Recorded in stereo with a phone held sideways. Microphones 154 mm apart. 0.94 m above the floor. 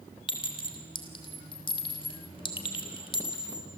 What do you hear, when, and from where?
0.3 s a clink: 35° left (ahead or behind), 3 m